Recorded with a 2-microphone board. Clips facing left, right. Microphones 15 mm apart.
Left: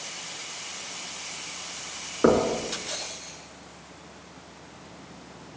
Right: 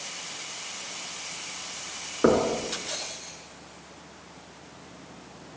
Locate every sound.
2.2 s knocking: 5° left (ahead or behind), 3.5 m